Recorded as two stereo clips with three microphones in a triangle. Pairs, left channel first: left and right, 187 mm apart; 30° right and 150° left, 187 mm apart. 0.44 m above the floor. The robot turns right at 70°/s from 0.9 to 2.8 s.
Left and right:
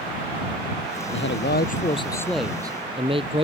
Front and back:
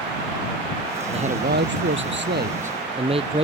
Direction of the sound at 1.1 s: 90° left.